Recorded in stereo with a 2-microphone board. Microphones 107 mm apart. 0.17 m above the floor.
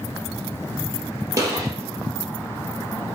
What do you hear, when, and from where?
1.4 s a gunshot: 30° right (ahead or behind), 3 m